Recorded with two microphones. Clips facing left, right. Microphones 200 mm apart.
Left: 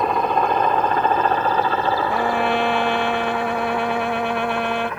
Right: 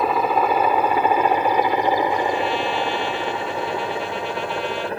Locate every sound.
0.0 s a helicopter: 5° right (ahead or behind); by 5.0 s 35° right (ahead or behind)
2.1 s a trumpet: 60° left (ahead or behind)